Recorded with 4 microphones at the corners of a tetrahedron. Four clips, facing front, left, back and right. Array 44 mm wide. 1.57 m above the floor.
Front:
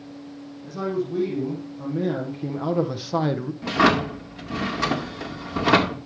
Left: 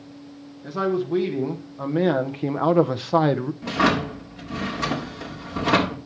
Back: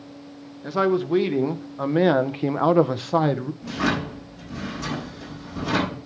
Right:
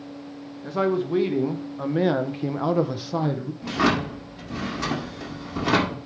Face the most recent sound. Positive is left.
turn(degrees=5)